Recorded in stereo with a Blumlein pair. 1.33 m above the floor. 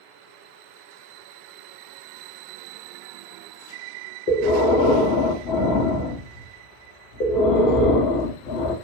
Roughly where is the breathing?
Ahead left.